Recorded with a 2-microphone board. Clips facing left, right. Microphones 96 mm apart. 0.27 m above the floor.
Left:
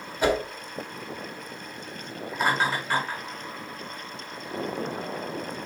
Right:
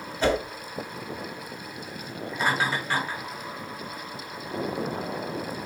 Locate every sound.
0.2 s a whoosh: 15° left (ahead or behind), 1.0 m
2.3 s laughter: 5° left (ahead or behind), 1.3 m